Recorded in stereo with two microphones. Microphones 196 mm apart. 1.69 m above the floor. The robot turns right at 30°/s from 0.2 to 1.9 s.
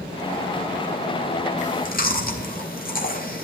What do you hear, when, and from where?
1.6 s chewing: 40° left (ahead or behind), 3 m; by 3.5 s 50° left (ahead or behind), 3 m